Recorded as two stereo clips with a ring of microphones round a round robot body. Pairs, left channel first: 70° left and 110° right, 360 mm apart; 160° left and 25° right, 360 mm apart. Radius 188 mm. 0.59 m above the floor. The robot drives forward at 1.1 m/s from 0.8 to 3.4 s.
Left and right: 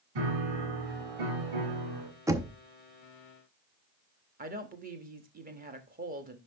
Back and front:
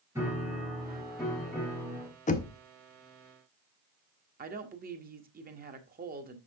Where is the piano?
105° right, 3.5 m; by 2.1 s 125° right, 4 m.